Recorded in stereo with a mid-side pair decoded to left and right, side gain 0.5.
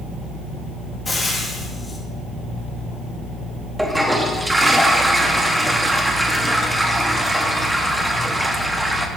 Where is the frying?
25° left, 1.8 m.